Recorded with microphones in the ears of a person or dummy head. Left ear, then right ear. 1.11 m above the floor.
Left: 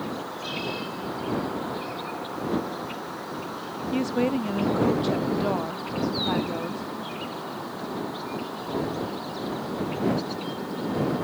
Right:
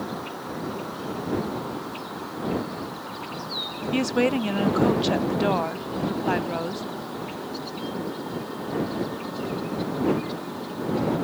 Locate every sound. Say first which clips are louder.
3.9 s a woman speaking: right 3 dB; 25° right (ahead or behind)